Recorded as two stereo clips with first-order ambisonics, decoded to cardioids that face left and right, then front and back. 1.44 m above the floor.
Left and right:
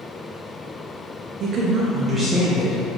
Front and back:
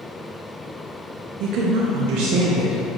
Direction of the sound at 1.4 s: 140° right.